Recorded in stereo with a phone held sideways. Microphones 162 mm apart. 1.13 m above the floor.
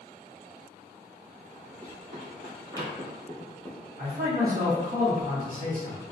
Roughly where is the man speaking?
Right.